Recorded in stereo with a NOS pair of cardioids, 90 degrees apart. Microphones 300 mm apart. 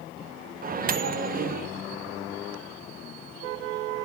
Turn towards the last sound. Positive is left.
turn(degrees=-30)